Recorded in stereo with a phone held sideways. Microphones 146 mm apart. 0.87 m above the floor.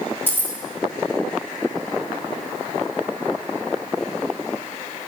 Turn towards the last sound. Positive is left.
turn(degrees=15)  # may be behind; listen again after turning